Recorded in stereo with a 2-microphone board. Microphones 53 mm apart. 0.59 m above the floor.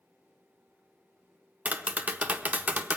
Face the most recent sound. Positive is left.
turn(degrees=-30)  # may be behind; listen again after turning